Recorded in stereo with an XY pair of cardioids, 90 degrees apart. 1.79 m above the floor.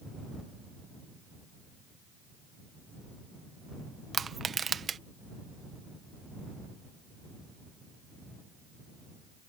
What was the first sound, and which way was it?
Crushing, 50° right.